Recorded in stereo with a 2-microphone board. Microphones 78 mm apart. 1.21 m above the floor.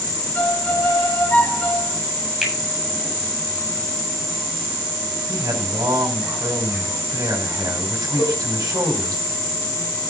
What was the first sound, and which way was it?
A violin, 20° left (ahead or behind).